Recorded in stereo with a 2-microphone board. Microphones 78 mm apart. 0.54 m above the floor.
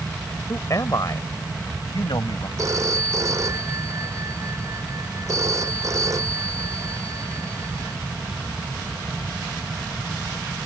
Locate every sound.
0.5 s a man speaking: 40° left (ahead or behind); by 2.5 s 70° left (ahead or behind)
2.6 s a phone ringing: 45° right (ahead or behind)